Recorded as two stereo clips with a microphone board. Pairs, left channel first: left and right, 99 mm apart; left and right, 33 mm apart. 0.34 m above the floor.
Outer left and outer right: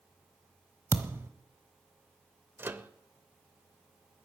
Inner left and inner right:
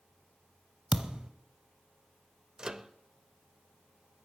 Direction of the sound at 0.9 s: 25° right (ahead or behind).